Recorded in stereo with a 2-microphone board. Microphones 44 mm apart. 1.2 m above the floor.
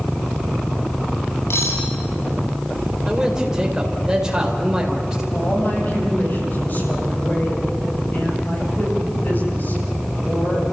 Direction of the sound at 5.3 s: 45° left (ahead or behind).